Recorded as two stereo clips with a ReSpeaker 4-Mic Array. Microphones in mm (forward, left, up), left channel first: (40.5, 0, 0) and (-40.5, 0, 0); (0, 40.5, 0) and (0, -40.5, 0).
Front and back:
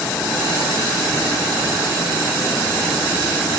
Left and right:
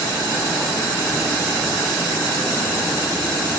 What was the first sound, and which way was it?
Only background noise.